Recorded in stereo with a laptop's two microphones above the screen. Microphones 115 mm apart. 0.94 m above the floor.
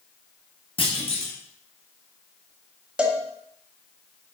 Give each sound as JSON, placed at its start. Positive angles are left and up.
{"t": 0.8, "sound": "a clunk", "side_deg": 50, "distance_m": 1.2}
{"t": 3.0, "sound": "a cowbell", "side_deg": -10, "distance_m": 0.7}